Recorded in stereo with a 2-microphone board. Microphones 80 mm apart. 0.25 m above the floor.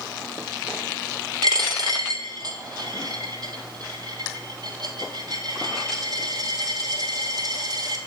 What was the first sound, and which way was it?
A dropped coin, 60° right (ahead or behind).